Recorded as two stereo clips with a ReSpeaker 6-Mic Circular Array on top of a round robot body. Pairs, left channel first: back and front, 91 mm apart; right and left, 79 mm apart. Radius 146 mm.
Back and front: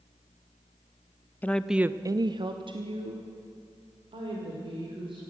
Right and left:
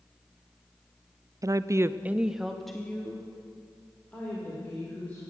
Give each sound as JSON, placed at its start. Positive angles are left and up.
{"t": 1.4, "sound": "a woman speaking", "azimuth_deg": 115, "distance_m": 0.6}